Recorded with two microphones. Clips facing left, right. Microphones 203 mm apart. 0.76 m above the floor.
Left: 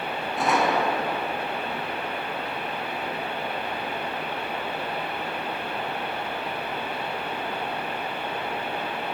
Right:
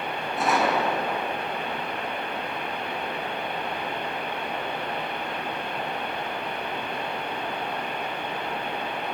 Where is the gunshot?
Centre (ahead or behind), 5.5 m.